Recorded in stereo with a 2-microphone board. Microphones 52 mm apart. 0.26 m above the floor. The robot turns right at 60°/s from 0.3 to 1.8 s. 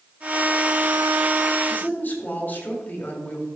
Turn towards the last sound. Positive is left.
turn(degrees=40)  # may be behind; listen again after turning